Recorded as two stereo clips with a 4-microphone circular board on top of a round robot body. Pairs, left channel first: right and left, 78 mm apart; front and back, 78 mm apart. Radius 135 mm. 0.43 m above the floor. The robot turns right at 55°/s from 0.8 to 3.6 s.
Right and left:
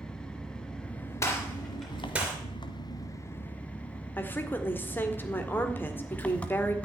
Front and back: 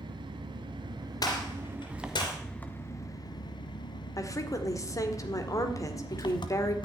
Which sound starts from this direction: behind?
An engine running, at 0.0 s.